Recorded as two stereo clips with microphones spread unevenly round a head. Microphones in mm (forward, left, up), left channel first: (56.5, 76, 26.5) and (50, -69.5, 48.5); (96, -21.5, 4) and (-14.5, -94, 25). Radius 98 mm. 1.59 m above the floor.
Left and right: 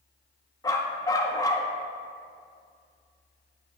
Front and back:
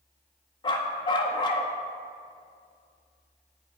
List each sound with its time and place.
0.6 s a dog barking: 35° left, 1.0 m